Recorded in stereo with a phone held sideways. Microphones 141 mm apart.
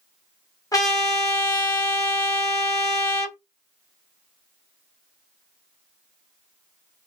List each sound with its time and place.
0.7 s a trumpet: 25° left (ahead or behind), 0.9 m